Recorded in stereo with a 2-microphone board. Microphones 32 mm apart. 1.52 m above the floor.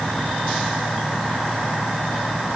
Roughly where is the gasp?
I don't hear a gasp.